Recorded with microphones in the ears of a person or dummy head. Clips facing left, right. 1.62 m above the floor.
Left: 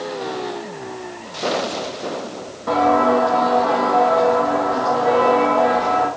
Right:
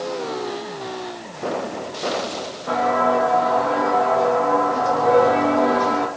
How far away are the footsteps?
About 4 m.